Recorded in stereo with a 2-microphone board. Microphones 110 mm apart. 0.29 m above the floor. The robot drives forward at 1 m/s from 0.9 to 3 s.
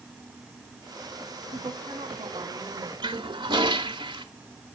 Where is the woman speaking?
55° right (ahead or behind), 1.8 m; by 2.9 s 40° right (ahead or behind), 2.5 m.